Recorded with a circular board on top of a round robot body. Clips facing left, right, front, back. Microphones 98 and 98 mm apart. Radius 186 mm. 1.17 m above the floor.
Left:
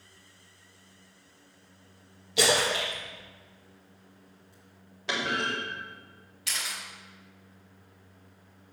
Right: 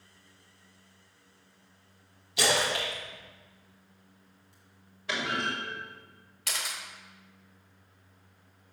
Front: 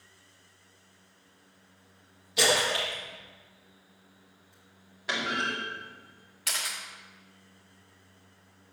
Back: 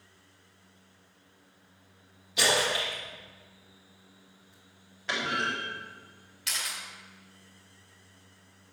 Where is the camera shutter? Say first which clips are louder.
Even, front 1 dB; 50° right, 0.5 m.